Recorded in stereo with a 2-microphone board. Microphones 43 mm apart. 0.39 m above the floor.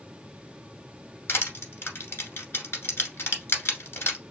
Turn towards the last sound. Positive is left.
turn(degrees=65)  # may be behind; listen again after turning